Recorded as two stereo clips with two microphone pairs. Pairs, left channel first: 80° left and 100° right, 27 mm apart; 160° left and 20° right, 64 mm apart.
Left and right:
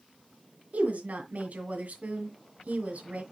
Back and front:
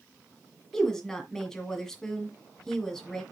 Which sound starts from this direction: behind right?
A woman speaking, at 0.7 s.